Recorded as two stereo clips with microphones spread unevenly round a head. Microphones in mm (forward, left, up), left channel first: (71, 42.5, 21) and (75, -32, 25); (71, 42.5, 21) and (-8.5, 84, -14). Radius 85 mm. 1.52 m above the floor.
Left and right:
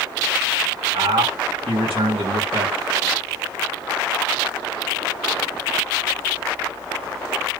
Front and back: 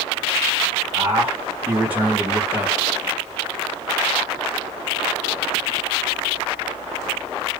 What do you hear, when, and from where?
0.9 s a man speaking: 125° right, 1.6 m